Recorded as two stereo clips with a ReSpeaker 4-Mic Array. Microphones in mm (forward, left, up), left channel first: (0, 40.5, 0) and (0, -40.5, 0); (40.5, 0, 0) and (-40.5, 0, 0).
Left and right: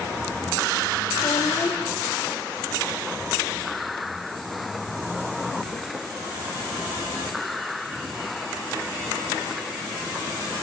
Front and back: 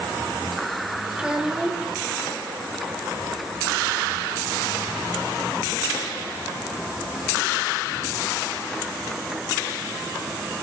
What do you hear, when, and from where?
1.1 s a child speaking: 105° left, 2.5 m